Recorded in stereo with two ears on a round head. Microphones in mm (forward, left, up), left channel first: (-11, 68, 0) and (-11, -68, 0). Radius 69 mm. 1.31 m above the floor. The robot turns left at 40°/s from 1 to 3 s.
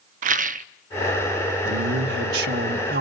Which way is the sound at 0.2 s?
55° right (ahead or behind).